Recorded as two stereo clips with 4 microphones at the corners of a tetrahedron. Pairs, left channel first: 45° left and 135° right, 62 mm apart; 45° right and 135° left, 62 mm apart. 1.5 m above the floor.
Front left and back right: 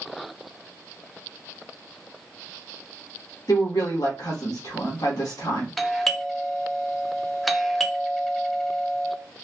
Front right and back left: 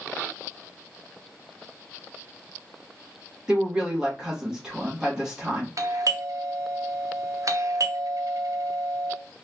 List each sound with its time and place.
3.5 s a woman speaking: 55° left, 1.9 m
5.8 s a doorbell: 135° left, 0.6 m